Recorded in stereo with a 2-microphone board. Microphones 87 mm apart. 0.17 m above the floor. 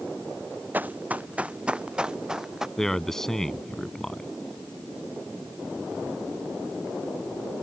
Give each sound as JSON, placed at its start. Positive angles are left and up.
{"t": 0.7, "sound": "running footsteps", "side_deg": -20}
{"t": 2.8, "sound": "a man speaking", "side_deg": 5}